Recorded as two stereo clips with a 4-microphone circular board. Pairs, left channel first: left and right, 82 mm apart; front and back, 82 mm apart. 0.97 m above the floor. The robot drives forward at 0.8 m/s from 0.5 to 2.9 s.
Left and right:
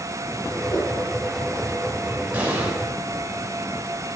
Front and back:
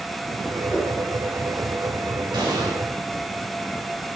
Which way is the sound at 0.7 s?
65° left.